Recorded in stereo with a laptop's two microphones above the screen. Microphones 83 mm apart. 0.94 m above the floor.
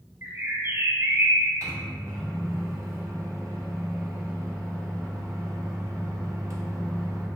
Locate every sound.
0.2 s a bird: 30° right (ahead or behind), 0.6 m
1.6 s a microwave: 40° right (ahead or behind), 1.4 m